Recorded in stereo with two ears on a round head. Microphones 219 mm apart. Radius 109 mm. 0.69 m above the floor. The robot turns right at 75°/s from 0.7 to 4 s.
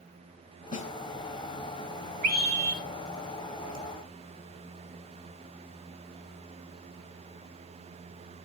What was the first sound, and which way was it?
A snare drum, 30° left (ahead or behind).